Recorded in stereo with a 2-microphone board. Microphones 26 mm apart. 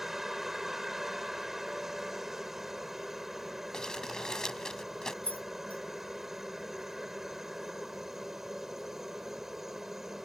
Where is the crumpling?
25° left (ahead or behind).